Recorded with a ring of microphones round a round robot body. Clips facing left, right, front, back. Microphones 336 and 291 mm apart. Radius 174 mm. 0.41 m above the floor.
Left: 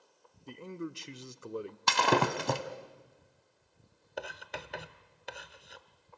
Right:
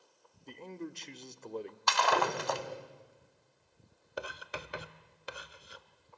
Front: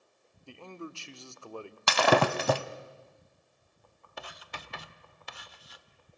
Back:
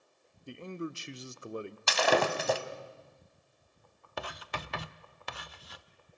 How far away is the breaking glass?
About 1.1 m.